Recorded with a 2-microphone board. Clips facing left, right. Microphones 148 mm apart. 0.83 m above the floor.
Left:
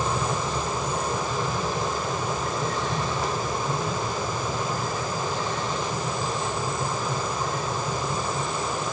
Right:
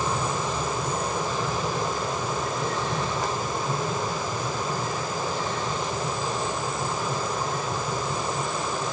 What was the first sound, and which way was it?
Only background noise.